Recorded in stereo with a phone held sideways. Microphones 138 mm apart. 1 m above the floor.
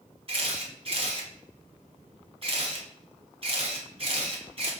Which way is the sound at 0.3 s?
45° right (ahead or behind).